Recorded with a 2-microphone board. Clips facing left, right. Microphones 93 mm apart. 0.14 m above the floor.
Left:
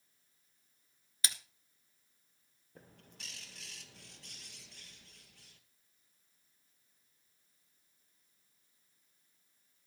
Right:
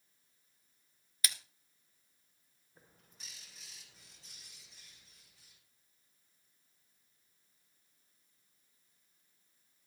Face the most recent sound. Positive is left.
turn(degrees=70)  # may be behind; listen again after turning